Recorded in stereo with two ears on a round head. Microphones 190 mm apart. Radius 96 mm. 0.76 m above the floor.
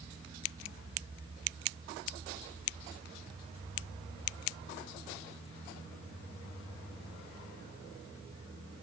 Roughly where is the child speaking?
I don't hear a child speaking.